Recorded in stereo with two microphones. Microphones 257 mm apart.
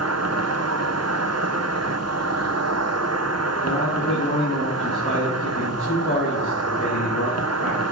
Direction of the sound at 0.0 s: 75° right (ahead or behind).